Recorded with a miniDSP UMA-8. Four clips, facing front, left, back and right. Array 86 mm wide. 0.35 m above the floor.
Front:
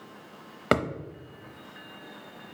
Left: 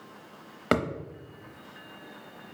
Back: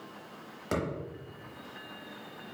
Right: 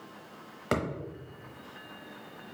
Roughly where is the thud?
Ahead left.